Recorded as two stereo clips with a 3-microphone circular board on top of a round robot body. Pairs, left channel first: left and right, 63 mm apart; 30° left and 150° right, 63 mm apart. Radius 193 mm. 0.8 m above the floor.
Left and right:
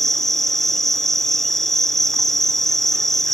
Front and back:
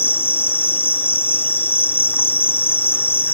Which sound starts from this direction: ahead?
An insect, at 0.0 s.